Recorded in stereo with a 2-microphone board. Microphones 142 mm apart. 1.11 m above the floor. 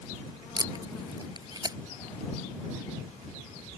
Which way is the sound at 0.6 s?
30° right (ahead or behind).